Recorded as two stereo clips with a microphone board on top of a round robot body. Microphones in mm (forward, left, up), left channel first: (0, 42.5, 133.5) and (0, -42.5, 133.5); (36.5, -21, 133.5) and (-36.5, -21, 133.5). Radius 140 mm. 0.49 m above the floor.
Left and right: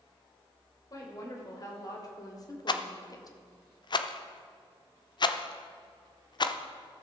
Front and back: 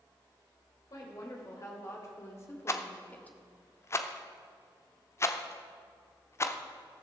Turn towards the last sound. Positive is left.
turn(degrees=55)